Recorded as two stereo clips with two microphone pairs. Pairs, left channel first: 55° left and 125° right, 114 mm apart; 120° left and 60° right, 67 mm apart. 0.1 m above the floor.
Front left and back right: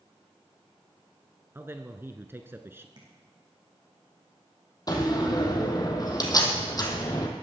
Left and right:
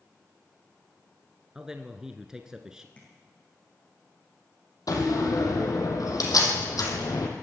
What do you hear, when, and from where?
1.6 s a man speaking: 120° right, 1.1 m
3.0 s tapping: 170° right, 5.5 m
4.9 s a door slam: 105° left, 3 m